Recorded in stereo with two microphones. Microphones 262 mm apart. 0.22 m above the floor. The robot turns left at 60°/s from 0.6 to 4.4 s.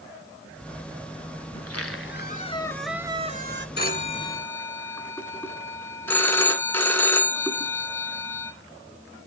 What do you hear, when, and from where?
1.5 s a squeak: 80° left, 0.8 m; by 3.7 s 50° right, 0.8 m
3.8 s a phone ringing: 45° left, 1.7 m; by 8.5 s 10° left, 1.7 m